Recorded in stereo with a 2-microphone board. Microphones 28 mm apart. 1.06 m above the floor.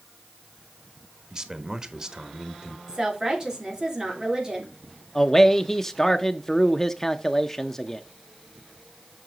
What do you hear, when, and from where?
1.3 s a man speaking: 25° right (ahead or behind), 1.2 m
2.9 s a woman speaking: 25° right (ahead or behind), 3 m
5.2 s a man speaking: 15° left (ahead or behind), 0.5 m